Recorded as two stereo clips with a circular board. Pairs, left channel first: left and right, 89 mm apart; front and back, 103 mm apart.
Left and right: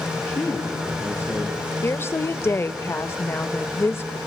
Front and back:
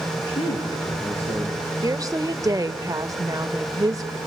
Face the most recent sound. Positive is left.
turn(degrees=140)